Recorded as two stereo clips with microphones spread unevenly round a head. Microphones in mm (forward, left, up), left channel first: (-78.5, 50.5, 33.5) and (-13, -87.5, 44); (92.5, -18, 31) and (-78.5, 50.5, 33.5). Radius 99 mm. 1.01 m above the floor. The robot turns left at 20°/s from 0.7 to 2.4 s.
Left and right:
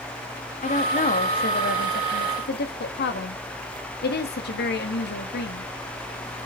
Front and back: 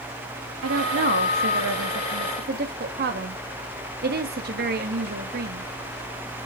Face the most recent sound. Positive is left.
turn(degrees=120)